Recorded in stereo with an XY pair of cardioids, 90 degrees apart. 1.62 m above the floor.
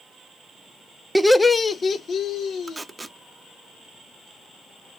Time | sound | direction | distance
1.1 | laughter | 10° right | 0.5 m
2.7 | tape being pulled | 20° right | 0.5 m